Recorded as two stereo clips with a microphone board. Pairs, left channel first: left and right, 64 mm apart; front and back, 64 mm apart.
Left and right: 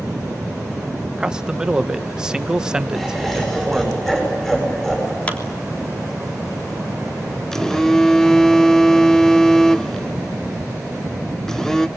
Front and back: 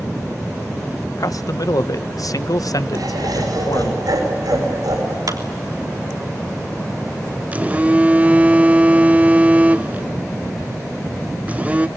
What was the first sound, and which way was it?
A man speaking, 15° right.